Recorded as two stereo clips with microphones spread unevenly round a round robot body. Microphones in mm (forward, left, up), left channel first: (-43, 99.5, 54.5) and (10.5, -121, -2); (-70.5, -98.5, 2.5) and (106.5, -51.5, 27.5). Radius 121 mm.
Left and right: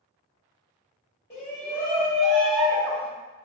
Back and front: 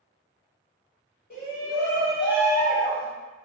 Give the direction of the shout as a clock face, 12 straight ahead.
6 o'clock.